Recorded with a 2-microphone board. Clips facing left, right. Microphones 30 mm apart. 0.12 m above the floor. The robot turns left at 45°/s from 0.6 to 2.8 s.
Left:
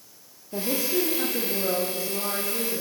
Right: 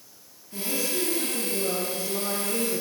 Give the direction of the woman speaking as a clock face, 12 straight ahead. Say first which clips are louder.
Left 3 dB; 10 o'clock.